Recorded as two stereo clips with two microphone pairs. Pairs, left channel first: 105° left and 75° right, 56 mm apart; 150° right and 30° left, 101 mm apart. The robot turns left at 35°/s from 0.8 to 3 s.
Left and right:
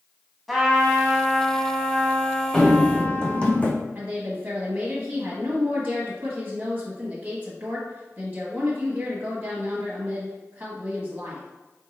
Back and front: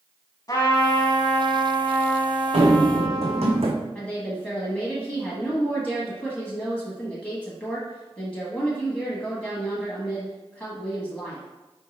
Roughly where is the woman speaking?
Right.